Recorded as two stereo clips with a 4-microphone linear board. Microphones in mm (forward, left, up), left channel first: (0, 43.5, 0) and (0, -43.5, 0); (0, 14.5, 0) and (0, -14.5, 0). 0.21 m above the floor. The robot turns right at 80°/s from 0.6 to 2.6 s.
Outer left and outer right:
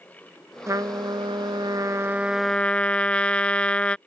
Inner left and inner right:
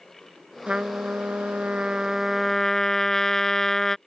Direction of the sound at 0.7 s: 140° right.